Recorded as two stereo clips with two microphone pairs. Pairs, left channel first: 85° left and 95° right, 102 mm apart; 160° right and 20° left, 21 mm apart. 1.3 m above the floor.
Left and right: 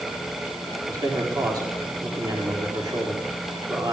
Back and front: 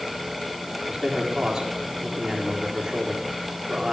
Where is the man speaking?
45° right, 4 m.